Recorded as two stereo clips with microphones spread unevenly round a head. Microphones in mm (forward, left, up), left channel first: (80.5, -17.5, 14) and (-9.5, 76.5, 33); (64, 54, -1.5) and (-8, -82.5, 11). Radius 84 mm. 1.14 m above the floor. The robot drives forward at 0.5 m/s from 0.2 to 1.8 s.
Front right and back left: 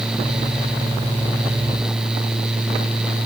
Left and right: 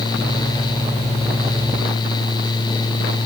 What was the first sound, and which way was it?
Only background noise.